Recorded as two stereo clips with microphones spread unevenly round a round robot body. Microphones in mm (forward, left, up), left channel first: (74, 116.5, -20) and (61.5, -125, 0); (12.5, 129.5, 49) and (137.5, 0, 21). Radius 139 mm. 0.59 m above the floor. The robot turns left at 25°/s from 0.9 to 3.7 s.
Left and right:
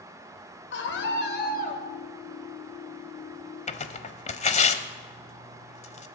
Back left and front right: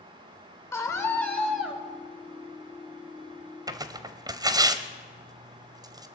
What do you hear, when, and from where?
0.7 s a scream: 60° left, 2.5 m; by 1.8 s 35° left, 2.5 m
3.7 s tearing paper: 25° left, 1.0 m